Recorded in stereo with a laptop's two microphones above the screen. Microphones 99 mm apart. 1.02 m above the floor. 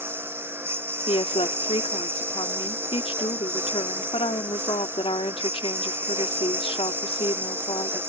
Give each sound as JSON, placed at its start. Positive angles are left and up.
{"t": 0.0, "sound": "a lawn mower", "side_deg": -20}
{"t": 1.1, "sound": "a woman speaking", "side_deg": 75}